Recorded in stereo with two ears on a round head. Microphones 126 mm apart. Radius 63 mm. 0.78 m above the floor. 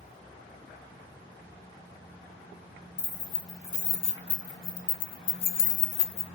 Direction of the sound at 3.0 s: 45° left (ahead or behind).